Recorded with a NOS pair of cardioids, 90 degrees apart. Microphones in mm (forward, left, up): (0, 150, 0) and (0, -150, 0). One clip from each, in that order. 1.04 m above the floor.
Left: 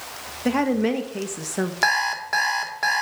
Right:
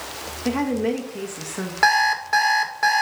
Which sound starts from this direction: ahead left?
A woman speaking, at 0.5 s.